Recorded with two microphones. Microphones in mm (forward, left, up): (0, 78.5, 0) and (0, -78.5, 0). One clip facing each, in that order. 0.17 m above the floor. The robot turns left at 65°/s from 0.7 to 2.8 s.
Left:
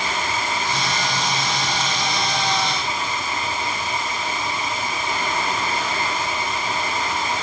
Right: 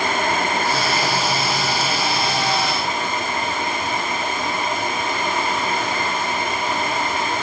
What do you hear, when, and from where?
Only background noise.